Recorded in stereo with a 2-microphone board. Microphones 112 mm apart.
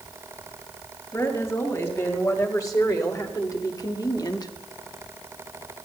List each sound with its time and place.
1.1 s a woman speaking: 30° left (ahead or behind), 4.5 m; by 4.5 s 35° left (ahead or behind), 1.1 m